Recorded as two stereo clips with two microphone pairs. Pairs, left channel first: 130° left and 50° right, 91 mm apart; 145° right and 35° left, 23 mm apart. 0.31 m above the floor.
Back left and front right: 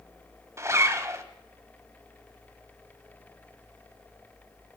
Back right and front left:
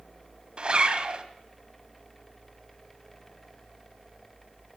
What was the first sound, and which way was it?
A zipper, straight ahead.